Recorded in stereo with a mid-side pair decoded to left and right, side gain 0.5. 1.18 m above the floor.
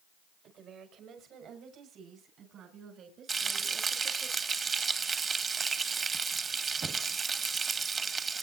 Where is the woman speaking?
70° right, 5.5 m; by 4.3 s 55° right, 7.5 m.